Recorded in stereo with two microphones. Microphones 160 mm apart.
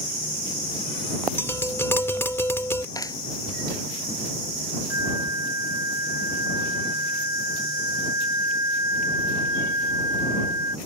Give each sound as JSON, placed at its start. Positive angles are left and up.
{"t": 1.4, "sound": "tapping", "side_deg": 15}
{"t": 3.0, "sound": "a clap", "side_deg": 20}
{"t": 4.9, "sound": "a flute", "side_deg": 85}